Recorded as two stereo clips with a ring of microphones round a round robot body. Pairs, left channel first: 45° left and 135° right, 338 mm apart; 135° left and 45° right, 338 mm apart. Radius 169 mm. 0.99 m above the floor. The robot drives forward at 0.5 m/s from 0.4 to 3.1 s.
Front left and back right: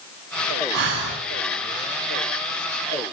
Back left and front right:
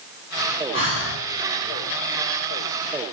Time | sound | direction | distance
0.7 | breathing | 165° right | 9.5 m